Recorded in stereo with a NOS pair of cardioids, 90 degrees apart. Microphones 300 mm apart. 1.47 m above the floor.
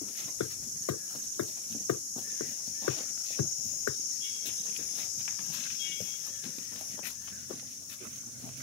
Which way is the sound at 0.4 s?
65° left.